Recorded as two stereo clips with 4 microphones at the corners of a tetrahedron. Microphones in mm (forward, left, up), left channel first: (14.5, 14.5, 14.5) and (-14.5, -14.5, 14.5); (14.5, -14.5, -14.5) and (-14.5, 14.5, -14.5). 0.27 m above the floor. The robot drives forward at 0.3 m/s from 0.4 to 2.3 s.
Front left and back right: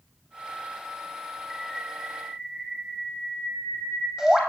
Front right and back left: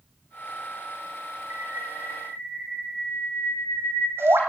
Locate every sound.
1.5 s a bird: 150° left, 1.9 m; by 4.4 s 155° left, 2 m